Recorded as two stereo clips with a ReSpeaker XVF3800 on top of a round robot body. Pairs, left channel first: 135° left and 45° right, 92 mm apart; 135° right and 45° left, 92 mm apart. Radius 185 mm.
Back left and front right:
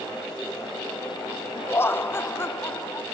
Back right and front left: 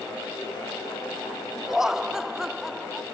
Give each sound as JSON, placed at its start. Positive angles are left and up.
{"t": 1.7, "sound": "laughter", "azimuth_deg": 125, "distance_m": 1.1}